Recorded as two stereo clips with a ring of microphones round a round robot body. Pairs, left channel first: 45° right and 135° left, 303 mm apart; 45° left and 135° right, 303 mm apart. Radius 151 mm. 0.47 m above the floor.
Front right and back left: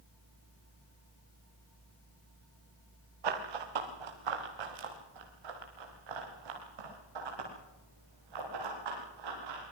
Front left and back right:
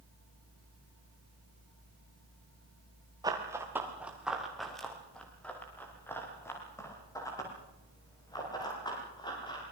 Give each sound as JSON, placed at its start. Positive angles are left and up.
{"t": 3.2, "sound": "running footsteps", "azimuth_deg": 145, "distance_m": 3.5}